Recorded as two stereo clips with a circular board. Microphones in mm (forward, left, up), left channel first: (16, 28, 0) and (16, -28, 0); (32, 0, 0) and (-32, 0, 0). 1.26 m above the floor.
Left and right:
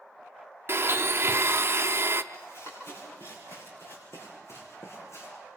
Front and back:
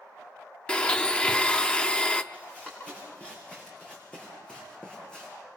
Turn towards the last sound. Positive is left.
turn(degrees=75)